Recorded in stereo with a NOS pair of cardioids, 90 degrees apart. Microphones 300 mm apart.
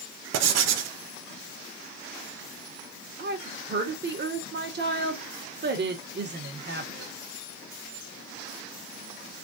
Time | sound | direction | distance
0.3 | writing | 60° right | 0.6 m
3.2 | a woman speaking | 35° right | 1.3 m